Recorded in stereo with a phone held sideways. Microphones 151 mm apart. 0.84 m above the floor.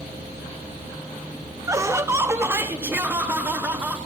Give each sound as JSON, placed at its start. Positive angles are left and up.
{"t": 1.7, "sound": "laughter", "side_deg": -20, "distance_m": 0.5}